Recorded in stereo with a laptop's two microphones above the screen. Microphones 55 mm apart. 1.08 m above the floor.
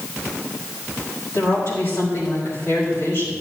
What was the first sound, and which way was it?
A woman speaking, 65° left (ahead or behind).